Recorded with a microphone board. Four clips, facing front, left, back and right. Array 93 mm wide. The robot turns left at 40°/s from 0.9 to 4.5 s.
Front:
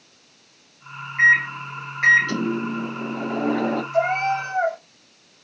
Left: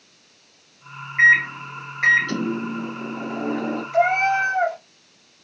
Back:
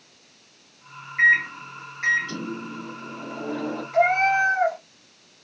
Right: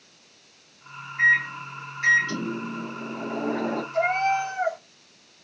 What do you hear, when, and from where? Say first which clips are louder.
1.2 s a microwave: left 5 dB, front 2 dB; 90° left, 0.6 m; by 3.8 s 15° right, 0.6 m
3.9 s a cat meowing: left 5 dB, back 4 dB; 115° left, 1.9 m; by 4.8 s 95° left, 1.9 m